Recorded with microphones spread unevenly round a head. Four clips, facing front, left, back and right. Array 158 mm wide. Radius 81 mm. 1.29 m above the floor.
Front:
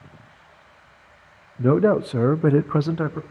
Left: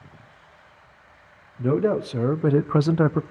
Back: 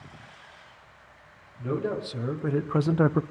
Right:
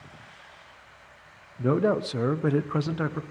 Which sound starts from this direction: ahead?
A man speaking, at 1.6 s.